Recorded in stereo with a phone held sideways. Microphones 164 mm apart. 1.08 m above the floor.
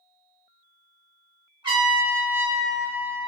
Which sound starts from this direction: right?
A trumpet, at 1.6 s.